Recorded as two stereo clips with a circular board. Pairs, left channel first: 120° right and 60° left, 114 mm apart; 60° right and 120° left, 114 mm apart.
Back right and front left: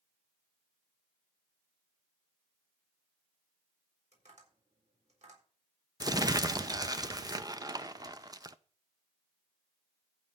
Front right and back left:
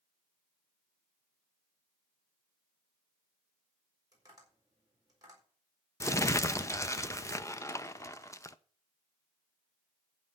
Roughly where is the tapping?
Ahead left.